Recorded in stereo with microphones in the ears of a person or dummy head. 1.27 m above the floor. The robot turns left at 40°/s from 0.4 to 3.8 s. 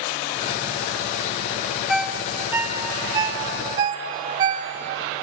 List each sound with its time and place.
1.9 s a ringtone: 5° left (ahead or behind), 0.6 m; by 5.2 s 20° right (ahead or behind), 0.6 m